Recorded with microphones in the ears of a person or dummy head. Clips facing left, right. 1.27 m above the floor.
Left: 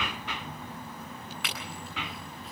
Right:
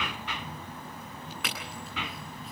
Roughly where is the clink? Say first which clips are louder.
Right 2 dB; right.